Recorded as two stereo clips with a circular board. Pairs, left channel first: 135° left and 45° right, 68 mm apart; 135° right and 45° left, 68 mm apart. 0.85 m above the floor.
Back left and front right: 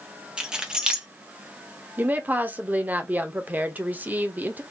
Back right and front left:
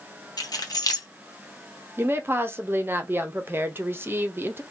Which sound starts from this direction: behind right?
Keys jangling, at 0.4 s.